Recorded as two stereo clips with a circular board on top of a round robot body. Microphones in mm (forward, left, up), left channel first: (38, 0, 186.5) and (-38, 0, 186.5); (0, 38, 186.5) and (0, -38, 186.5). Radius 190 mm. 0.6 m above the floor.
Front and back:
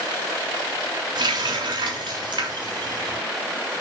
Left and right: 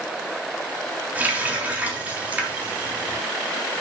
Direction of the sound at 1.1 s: 160° right.